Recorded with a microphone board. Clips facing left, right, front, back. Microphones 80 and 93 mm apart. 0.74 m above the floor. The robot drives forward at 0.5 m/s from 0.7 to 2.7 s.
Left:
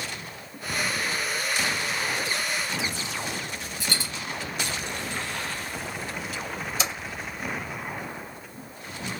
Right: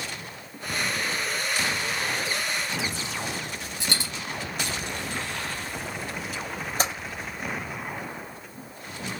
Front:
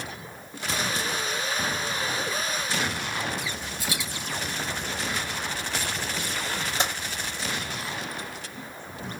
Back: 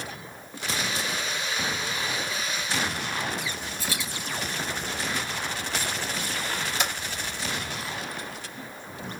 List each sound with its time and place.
3.8 s a dropped coin: 75° right, 3.5 m
6.8 s typing on a keyboard: 60° right, 4 m